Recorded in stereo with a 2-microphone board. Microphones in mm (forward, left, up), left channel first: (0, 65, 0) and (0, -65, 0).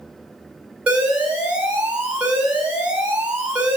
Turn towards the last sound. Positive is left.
turn(degrees=-10)  # may be behind; listen again after turning